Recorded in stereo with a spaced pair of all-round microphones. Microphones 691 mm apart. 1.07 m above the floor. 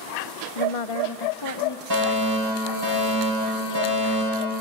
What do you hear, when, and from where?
0.6 s a woman speaking: 55° left (ahead or behind), 0.7 m; by 1.8 s 25° left (ahead or behind), 1.0 m
1.9 s a fire alarm: 35° right (ahead or behind), 8 m